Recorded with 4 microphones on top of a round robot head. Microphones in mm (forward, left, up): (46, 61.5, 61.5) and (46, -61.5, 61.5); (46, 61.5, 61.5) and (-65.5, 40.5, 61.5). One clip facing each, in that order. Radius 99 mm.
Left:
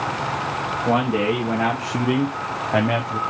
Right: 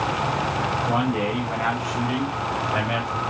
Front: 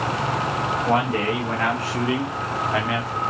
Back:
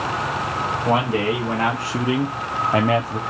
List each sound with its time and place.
0.8 s a man speaking: 120° left, 1.9 m; by 3.2 s 155° left, 0.8 m